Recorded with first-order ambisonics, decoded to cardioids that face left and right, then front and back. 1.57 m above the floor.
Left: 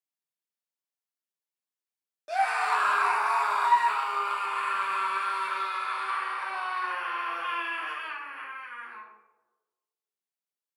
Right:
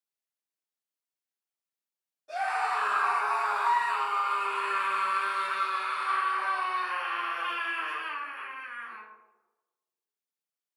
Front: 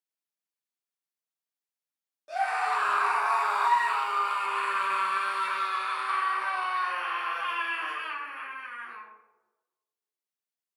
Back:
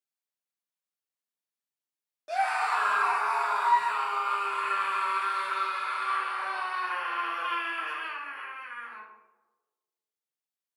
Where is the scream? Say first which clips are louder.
Left 3 dB, back 1 dB; 110° left, 0.7 m; by 9.0 s 15° left, 3.5 m.